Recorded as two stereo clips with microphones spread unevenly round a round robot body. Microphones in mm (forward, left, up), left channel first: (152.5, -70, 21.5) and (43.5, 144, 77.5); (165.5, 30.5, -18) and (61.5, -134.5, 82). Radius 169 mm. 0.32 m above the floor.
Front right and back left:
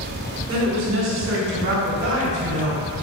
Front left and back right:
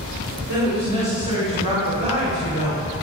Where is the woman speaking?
140° left, 3.5 m; by 2.8 s 170° left, 2.5 m.